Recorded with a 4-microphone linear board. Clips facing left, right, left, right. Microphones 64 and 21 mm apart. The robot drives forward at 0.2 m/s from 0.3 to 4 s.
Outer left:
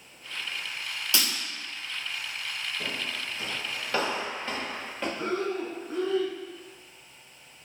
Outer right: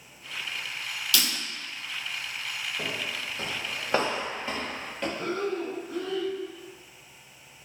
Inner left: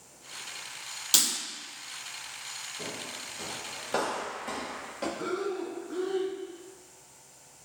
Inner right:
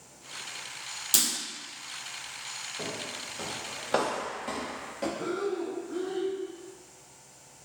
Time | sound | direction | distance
1.1 | breaking glass | 25° left (ahead or behind) | 0.9 m
2.8 | footsteps | 65° right (ahead or behind) | 1.1 m
5.2 | breathing | 30° left (ahead or behind) | 0.9 m